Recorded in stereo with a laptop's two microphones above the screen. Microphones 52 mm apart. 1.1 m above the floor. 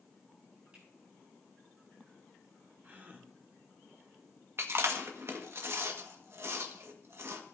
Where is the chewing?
50° right (ahead or behind), 1.4 m.